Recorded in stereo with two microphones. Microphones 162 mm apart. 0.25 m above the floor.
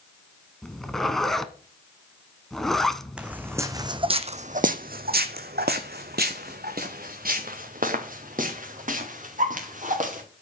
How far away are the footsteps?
About 1.0 m.